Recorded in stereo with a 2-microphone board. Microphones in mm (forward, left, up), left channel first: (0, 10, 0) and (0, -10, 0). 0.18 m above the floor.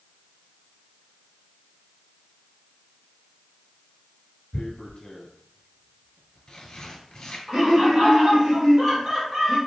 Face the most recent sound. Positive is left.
turn(degrees=-40)  # may be behind; listen again after turning